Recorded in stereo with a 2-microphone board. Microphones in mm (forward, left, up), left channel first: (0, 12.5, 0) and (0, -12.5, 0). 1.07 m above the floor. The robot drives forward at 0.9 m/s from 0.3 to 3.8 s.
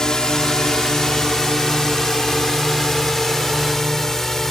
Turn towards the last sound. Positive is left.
turn(degrees=25)  # may be behind; listen again after turning